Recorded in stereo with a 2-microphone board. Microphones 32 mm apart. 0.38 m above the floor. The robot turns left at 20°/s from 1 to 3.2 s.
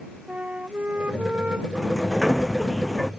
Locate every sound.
0.3 s a flute: 55° right (ahead or behind); by 1.6 s 40° right (ahead or behind)
1.8 s a sliding door: 15° right (ahead or behind); by 3.1 s 10° left (ahead or behind)